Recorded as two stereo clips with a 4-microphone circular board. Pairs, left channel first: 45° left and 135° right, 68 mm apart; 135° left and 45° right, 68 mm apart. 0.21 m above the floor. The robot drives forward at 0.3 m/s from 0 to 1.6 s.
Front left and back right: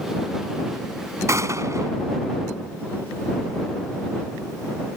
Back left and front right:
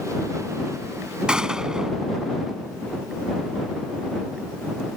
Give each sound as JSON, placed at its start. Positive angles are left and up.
{"t": 1.3, "sound": "a gunshot", "azimuth_deg": -120}